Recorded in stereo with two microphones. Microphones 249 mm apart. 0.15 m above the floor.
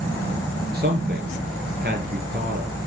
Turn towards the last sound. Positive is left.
turn(degrees=-35)  # may be behind; listen again after turning